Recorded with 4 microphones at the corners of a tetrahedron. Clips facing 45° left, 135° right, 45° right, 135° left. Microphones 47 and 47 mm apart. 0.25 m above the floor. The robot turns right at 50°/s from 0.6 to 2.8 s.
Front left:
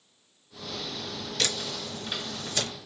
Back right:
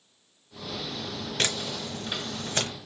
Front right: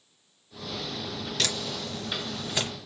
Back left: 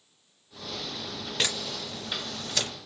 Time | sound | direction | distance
1.4 | a camera shutter | 170° right | 1.0 m